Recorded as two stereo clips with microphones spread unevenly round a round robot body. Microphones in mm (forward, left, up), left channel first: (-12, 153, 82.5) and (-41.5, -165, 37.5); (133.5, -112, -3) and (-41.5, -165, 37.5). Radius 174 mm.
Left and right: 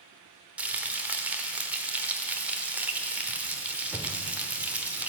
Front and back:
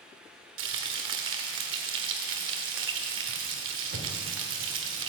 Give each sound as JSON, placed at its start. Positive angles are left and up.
{"t": 0.6, "sound": "frying", "azimuth_deg": 180, "distance_m": 1.1}